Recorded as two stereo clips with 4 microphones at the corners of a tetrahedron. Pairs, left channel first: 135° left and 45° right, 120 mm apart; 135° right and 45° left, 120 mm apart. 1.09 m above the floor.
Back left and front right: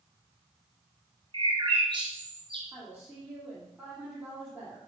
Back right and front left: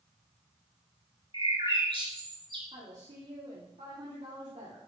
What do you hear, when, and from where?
1.3 s a bird: 5° left, 2.5 m
2.7 s a woman speaking: 35° left, 2.5 m